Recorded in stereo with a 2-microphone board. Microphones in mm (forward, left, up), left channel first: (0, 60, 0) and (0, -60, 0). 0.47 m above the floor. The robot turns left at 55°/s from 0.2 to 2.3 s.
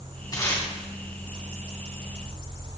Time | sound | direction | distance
0.3 | tape being pulled | 35° left (ahead or behind) | 2.5 m